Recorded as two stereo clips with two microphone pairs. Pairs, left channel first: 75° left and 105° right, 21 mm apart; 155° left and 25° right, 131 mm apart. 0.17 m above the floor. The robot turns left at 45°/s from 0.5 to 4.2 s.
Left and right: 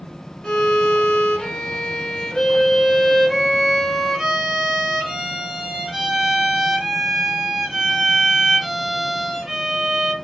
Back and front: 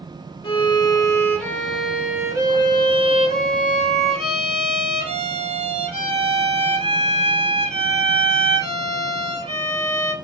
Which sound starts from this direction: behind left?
A violin, at 0.4 s.